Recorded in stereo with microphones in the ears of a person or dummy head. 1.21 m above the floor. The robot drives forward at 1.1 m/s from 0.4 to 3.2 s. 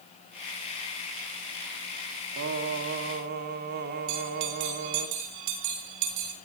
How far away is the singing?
About 3.5 m.